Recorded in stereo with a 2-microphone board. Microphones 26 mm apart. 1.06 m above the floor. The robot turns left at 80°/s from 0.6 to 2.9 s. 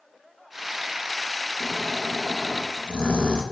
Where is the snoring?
135° right, 1.3 m; by 3.4 s 120° left, 1.3 m.